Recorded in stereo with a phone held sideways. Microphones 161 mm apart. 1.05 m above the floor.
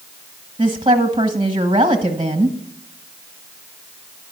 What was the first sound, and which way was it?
A woman speaking, 30° right (ahead or behind).